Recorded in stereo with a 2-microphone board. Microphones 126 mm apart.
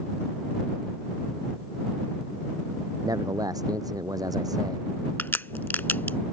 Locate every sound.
3.0 s a man speaking: 30° right (ahead or behind)
5.2 s a crack: 15° left (ahead or behind)